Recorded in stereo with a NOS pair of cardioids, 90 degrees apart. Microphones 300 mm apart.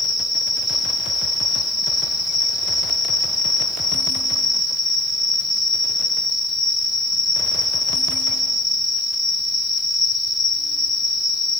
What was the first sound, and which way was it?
An insect, 10° left.